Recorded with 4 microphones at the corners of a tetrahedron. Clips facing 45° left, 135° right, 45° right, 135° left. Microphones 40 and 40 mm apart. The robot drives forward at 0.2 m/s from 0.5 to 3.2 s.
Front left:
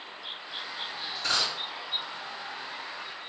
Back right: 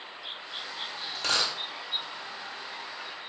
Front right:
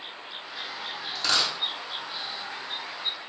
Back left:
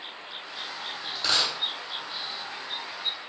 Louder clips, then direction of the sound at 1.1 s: Back right 1 dB, even; 140° right.